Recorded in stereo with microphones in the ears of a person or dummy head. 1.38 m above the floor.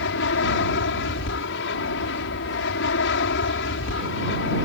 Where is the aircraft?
65° left (ahead or behind).